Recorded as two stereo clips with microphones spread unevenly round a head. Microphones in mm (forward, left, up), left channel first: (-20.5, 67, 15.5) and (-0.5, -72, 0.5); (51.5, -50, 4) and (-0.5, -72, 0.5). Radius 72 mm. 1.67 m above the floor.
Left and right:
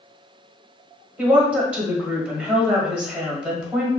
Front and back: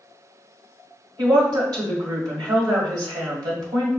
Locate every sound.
1.2 s a woman speaking: 165° right, 1.3 m